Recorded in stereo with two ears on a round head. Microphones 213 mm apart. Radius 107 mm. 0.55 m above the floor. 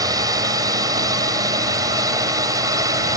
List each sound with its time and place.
0.0 s a drone: 15° right (ahead or behind)